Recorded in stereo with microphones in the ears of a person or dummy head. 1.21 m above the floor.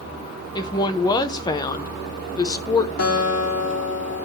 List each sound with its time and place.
0.6 s a woman speaking: 20° left (ahead or behind), 0.7 m
3.0 s a guitar: 75° left (ahead or behind), 2.5 m